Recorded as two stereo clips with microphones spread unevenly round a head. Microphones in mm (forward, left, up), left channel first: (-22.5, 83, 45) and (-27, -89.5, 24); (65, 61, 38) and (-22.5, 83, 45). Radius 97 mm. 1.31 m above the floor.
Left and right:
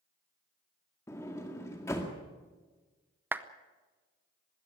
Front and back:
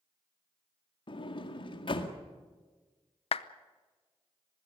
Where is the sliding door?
15° left, 2 m.